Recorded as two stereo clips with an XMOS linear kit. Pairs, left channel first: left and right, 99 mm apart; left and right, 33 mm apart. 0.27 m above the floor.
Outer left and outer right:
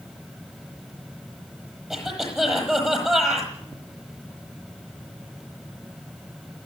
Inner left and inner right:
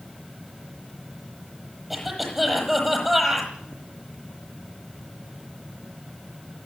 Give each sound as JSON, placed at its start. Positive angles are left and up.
{"t": 1.9, "sound": "a cough", "side_deg": -5, "distance_m": 10.0}